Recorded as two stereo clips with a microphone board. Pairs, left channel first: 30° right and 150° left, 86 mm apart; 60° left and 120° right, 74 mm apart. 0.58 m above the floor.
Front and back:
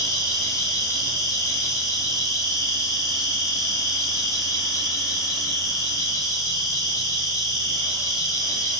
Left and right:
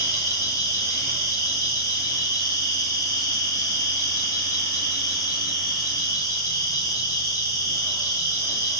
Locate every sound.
0.0 s an insect: 20° left, 7.5 m